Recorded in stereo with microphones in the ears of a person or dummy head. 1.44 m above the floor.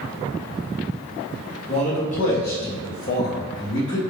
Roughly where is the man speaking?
Left.